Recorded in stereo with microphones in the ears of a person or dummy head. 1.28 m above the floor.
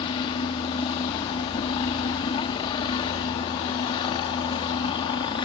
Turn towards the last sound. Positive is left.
turn(degrees=25)  # may be behind; listen again after turning